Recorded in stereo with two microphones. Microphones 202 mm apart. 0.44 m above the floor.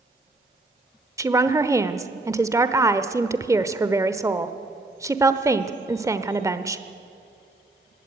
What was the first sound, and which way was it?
A woman speaking, 15° right (ahead or behind).